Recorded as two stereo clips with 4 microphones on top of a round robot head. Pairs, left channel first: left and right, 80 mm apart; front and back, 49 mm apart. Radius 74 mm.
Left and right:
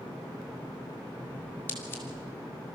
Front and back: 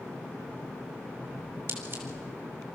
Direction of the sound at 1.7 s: 155° left.